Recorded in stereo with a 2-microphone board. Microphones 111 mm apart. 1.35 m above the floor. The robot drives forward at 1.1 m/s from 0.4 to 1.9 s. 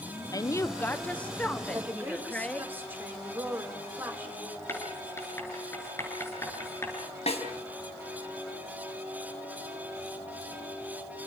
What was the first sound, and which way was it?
A woman speaking, 35° left (ahead or behind).